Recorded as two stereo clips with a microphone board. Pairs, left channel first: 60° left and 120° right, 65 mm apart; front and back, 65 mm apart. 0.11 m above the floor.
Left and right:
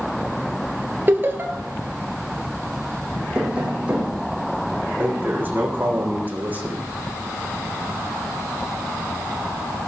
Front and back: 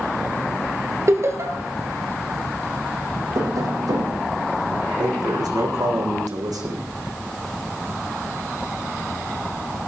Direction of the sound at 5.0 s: 175° left.